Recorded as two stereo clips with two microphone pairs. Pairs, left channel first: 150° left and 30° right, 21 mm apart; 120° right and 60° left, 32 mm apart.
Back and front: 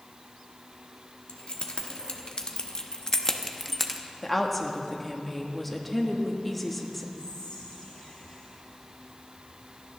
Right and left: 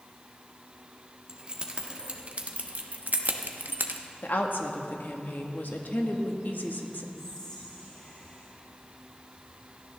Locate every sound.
1.3 s keys jangling: 120° left, 1.6 m; by 4.0 s 60° left, 0.9 m
4.2 s a woman speaking: 130° right, 1.5 m
7.2 s whispering: 175° left, 4.5 m